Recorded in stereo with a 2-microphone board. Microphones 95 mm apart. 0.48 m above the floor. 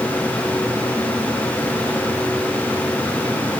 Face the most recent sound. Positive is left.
No sound to turn to.